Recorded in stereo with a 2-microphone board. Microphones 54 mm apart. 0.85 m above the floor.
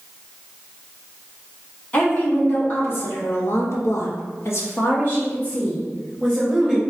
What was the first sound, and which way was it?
A woman speaking, 35° left (ahead or behind).